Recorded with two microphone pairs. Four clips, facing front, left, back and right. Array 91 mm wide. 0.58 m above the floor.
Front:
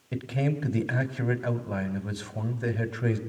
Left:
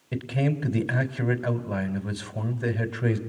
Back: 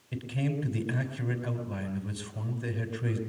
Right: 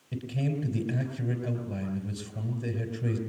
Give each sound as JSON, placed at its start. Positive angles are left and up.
{"t": 0.1, "sound": "a man speaking", "azimuth_deg": 50, "distance_m": 3.5}